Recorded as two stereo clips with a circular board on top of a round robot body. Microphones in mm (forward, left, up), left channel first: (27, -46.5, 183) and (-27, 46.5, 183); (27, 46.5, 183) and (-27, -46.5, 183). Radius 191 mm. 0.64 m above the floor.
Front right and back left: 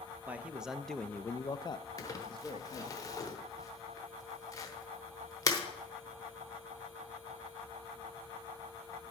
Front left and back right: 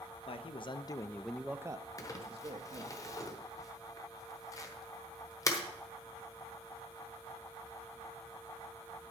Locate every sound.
0.3 s a man speaking: 45° left, 1.1 m; by 3.0 s 105° right, 1.5 m
2.0 s crumpling: straight ahead, 1.0 m